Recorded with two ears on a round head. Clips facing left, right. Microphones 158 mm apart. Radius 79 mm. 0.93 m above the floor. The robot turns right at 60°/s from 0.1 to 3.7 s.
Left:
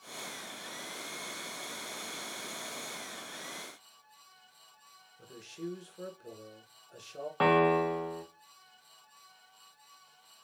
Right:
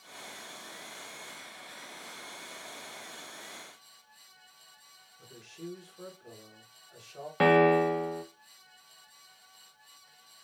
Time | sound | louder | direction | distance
5.2 | a man speaking | left 3 dB | 35° left (ahead or behind) | 1.1 m
7.4 | a piano | right 4 dB | 20° right (ahead or behind) | 0.7 m